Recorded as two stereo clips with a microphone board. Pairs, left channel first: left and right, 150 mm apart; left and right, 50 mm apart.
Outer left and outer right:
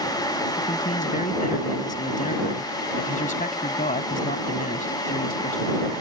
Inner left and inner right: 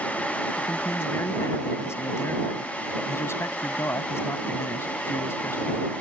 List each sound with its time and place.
0.6 s a man speaking: 60° left (ahead or behind)